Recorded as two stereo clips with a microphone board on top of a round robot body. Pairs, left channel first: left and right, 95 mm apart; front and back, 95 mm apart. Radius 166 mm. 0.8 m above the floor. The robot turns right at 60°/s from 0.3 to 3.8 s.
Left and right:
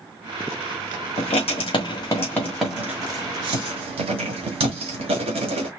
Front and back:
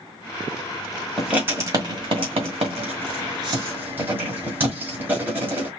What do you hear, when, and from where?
1.2 s writing: 95° left, 1.6 m; by 5.7 s 110° right, 1.6 m